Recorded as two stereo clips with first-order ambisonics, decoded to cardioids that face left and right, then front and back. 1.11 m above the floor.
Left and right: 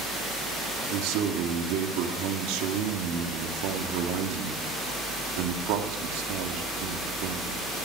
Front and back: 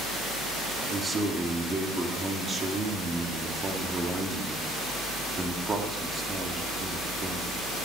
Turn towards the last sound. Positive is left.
turn(degrees=-105)